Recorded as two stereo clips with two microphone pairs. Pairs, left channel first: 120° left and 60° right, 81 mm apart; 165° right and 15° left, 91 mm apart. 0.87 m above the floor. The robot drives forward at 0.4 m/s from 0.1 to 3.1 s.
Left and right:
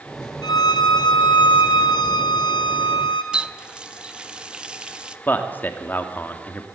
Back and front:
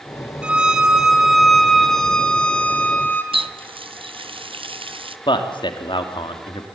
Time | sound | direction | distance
0.4 | a violin | 90° left | 1.7 m
3.3 | a running tap | 20° left | 0.7 m
5.3 | a man speaking | 175° right | 2 m